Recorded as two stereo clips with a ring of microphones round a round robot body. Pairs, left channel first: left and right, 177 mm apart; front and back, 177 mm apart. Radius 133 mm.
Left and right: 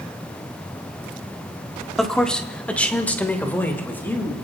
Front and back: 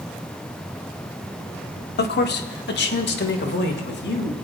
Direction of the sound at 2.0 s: Straight ahead.